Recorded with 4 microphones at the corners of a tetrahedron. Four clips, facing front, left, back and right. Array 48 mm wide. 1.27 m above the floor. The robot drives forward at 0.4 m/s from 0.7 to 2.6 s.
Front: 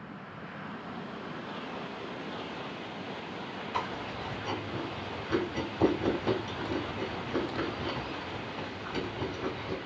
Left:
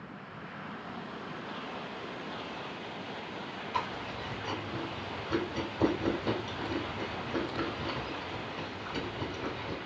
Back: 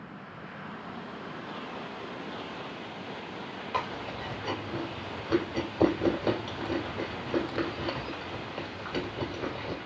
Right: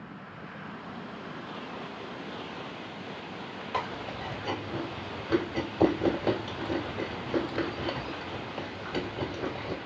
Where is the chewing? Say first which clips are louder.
Right 2 dB, back 2 dB; 150° right, 2.5 m.